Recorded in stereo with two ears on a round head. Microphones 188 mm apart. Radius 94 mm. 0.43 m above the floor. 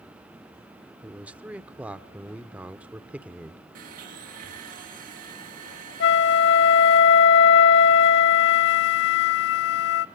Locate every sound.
1.0 s a man speaking: 5° right (ahead or behind), 0.8 m
3.8 s a blender: 45° right (ahead or behind), 6 m
6.0 s a flute: 55° left (ahead or behind), 0.8 m